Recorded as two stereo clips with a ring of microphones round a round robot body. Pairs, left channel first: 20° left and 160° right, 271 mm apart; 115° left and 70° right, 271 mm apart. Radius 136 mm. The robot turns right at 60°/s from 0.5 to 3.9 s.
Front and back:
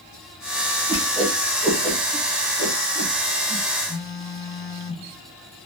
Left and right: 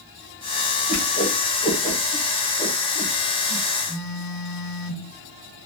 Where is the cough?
I don't hear a cough.